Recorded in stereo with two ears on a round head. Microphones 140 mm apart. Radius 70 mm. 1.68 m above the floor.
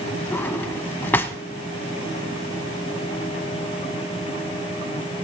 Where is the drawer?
10° left (ahead or behind), 1.0 m.